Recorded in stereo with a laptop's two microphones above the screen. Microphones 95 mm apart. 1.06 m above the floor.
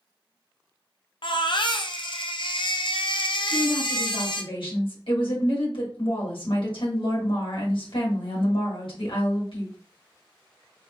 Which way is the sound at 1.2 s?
60° left (ahead or behind).